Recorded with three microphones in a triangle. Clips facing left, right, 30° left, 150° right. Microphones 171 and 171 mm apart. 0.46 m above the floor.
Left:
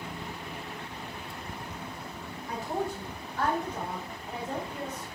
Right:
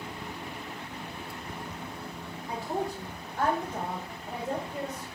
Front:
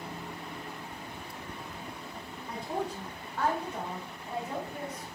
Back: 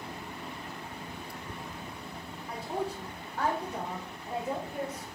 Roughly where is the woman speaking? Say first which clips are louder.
Even, even; ahead right.